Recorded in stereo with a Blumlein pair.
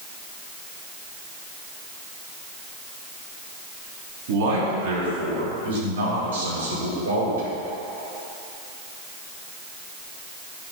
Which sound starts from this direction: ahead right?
A man speaking, at 4.3 s.